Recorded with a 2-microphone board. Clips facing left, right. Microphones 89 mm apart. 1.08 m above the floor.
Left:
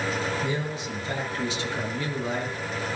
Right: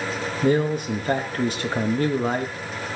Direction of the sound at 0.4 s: 50° right (ahead or behind).